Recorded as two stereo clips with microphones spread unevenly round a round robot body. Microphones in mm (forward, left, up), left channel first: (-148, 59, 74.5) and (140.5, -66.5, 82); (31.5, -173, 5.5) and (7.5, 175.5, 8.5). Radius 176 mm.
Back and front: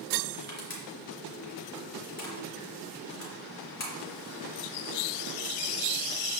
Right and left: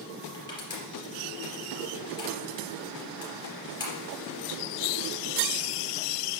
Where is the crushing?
165° right, 3 m.